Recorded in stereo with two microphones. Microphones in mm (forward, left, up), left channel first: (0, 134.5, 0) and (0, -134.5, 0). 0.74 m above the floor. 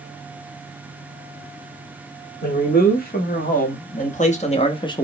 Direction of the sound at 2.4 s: 35° left (ahead or behind).